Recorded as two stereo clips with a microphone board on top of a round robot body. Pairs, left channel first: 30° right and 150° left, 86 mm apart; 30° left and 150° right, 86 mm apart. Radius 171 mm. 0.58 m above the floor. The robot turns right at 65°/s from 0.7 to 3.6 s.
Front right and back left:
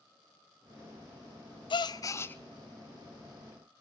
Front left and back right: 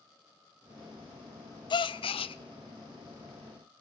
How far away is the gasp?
About 0.5 m.